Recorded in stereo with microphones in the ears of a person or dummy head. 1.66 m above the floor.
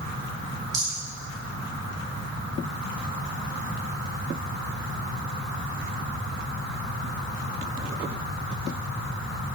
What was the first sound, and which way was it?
A rattle, 55° right (ahead or behind).